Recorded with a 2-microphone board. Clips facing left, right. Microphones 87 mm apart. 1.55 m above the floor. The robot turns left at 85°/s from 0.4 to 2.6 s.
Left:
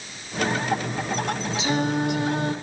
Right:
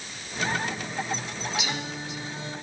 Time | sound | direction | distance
1.6 | singing | 145° left | 1.2 m